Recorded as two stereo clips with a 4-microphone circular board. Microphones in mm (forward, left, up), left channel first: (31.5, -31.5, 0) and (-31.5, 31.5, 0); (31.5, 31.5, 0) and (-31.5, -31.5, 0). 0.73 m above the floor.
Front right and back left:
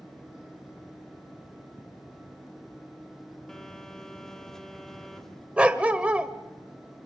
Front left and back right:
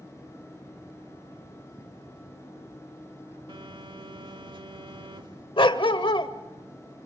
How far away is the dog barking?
About 1.0 m.